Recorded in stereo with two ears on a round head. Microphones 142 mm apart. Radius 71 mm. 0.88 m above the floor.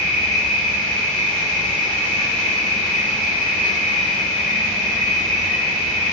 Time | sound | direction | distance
0.0 | an insect | centre (ahead or behind) | 1.3 m